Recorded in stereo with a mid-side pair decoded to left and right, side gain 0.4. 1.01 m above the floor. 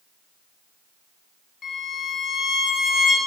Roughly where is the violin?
Ahead left.